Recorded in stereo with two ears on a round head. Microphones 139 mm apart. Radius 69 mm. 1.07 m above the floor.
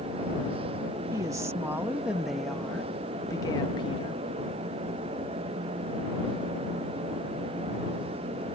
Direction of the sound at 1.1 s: 25° right (ahead or behind).